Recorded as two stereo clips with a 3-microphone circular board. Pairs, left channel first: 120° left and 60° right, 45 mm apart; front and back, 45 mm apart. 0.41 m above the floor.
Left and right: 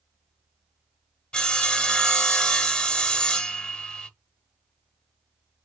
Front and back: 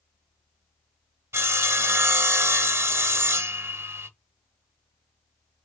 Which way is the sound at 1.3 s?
170° right.